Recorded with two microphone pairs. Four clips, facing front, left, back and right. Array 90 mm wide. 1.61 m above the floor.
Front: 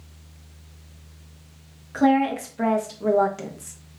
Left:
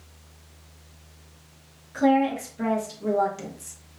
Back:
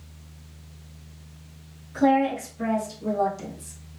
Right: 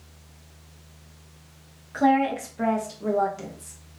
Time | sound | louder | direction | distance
1.9 | a woman speaking | even, front 1 dB | 40° right | 1.3 m